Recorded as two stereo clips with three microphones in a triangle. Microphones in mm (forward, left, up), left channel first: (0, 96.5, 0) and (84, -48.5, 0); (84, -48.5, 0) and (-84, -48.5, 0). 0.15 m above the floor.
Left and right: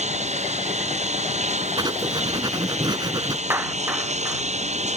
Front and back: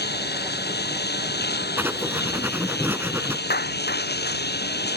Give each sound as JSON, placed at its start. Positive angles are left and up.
{"t": 0.0, "sound": "a lawn mower", "azimuth_deg": -10}
{"t": 1.8, "sound": "writing", "azimuth_deg": -105}
{"t": 3.5, "sound": "a clap", "azimuth_deg": 15}